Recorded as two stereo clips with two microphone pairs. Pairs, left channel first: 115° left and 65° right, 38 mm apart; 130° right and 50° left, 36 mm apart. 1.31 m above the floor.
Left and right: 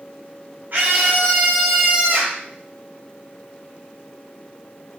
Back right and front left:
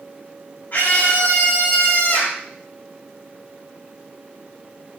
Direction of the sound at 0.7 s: 95° right.